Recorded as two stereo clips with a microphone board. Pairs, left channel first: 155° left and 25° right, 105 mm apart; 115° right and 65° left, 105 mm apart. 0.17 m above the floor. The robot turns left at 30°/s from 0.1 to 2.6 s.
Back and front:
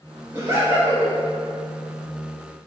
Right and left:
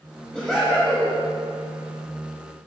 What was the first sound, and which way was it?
Laughter, 25° right.